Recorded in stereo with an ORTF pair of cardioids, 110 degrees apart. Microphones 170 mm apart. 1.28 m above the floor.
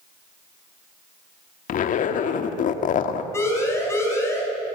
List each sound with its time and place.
1.7 s a zipper: 55° left, 2 m
3.3 s a siren: 15° left, 7.5 m